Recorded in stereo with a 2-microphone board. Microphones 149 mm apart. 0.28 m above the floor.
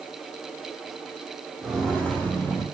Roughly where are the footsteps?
Centre.